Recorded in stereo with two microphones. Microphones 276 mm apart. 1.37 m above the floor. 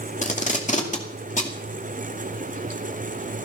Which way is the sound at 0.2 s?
25° left (ahead or behind).